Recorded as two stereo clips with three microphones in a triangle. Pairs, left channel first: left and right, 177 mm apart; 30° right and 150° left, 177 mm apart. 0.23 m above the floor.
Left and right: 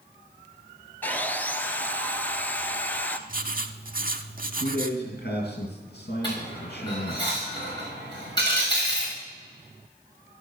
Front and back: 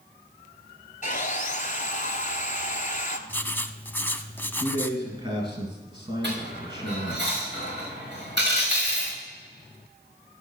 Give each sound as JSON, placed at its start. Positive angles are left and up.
{"t": 1.0, "sound": "sawing", "azimuth_deg": 10, "distance_m": 0.7}
{"t": 3.3, "sound": "writing", "azimuth_deg": -105, "distance_m": 0.6}
{"t": 4.6, "sound": "a man speaking", "azimuth_deg": 90, "distance_m": 3.0}
{"t": 6.2, "sound": "a dropped coin", "azimuth_deg": 155, "distance_m": 5.5}